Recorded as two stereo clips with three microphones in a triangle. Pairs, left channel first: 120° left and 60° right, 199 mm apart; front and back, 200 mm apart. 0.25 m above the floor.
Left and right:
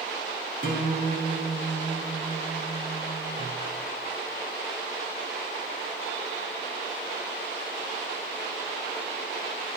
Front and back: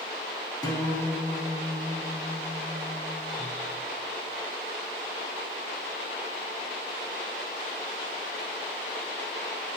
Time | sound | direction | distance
0.6 | a guitar | 65° right | 2.5 m